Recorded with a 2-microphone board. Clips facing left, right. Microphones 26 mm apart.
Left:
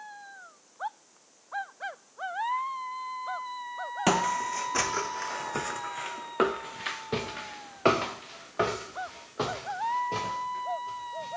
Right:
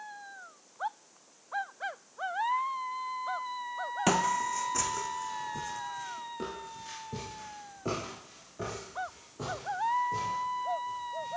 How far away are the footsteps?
About 0.9 m.